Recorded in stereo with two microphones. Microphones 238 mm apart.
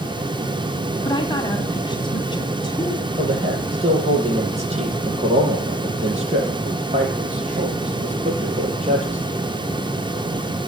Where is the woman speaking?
20° left (ahead or behind), 1.7 m.